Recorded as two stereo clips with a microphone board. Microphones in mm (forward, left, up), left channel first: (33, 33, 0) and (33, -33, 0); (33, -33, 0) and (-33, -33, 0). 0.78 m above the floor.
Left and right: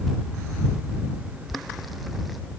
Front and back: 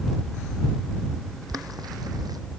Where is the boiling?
Straight behind.